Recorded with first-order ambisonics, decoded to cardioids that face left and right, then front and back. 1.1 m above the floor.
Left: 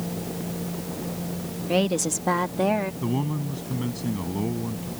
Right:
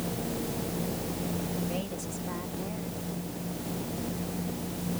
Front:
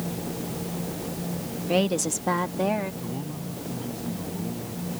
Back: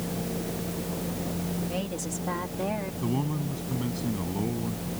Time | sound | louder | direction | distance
1.7 | a woman speaking | left 12 dB, front 9 dB | 50° left | ?
3.0 | a man speaking | left 9 dB, back 4 dB | 115° left | ?